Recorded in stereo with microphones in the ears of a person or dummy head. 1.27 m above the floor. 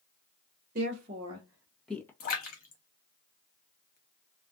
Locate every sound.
0.8 s a woman speaking: 40° right (ahead or behind), 1.0 m; by 2.1 s 15° left (ahead or behind), 0.7 m
2.2 s a splash: 50° left (ahead or behind), 0.7 m